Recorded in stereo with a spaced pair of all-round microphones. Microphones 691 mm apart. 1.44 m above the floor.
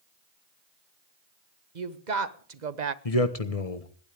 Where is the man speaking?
55° left (ahead or behind), 1.5 m.